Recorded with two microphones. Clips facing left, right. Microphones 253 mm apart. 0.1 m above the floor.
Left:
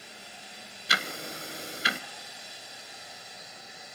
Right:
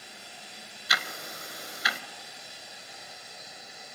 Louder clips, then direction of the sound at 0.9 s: Left 3 dB; 30° left (ahead or behind).